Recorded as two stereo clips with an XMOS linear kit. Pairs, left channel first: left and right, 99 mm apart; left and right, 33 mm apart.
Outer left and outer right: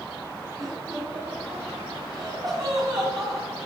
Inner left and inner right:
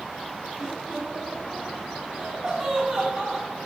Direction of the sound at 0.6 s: 40° right (ahead or behind).